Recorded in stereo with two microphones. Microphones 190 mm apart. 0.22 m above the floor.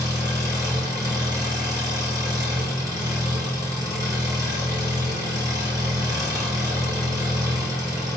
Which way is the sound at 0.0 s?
20° right (ahead or behind).